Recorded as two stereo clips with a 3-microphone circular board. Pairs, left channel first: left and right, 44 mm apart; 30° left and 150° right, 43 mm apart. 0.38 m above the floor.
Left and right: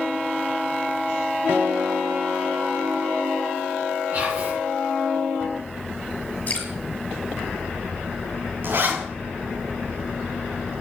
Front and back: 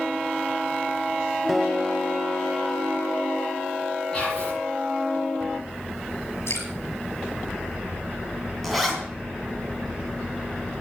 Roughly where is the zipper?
Ahead right.